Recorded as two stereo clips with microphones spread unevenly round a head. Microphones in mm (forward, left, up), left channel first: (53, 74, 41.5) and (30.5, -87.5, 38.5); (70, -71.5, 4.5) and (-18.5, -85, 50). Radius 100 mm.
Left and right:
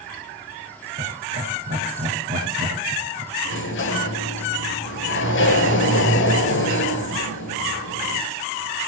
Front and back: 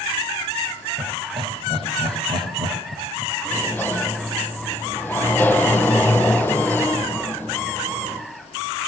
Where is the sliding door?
95° left, 4.5 m.